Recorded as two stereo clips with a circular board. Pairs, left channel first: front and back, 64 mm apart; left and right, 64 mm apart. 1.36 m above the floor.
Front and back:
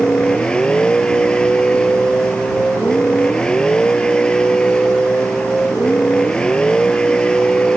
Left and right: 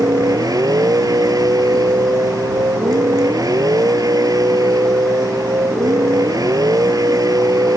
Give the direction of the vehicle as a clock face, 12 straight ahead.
3 o'clock.